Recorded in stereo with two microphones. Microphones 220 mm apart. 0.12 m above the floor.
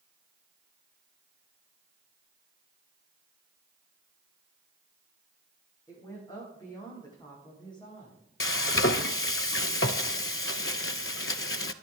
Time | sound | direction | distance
5.9 | a woman speaking | 15° left (ahead or behind) | 8 m
8.4 | frying | 70° left (ahead or behind) | 0.6 m